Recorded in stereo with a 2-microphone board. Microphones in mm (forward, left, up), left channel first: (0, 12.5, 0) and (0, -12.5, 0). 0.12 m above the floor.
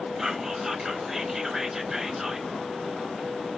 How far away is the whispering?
About 1.2 m.